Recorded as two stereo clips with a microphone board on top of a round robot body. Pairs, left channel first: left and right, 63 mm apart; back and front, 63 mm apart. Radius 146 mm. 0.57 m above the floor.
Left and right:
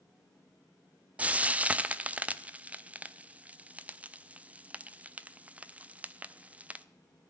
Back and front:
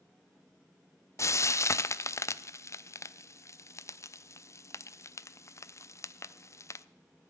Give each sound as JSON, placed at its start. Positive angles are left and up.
{"t": 1.2, "sound": "frying", "azimuth_deg": -155, "distance_m": 0.7}